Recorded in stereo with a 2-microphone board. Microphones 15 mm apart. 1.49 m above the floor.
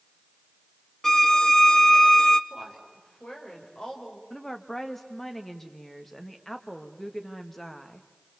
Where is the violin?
25° left (ahead or behind), 0.7 m.